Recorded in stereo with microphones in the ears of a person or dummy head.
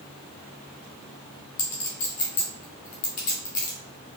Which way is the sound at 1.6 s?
45° left (ahead or behind).